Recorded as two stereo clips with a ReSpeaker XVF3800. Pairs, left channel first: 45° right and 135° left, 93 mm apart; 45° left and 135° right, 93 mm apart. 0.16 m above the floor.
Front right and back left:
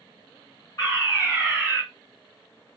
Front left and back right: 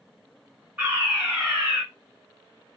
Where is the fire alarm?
65° right, 2.5 m.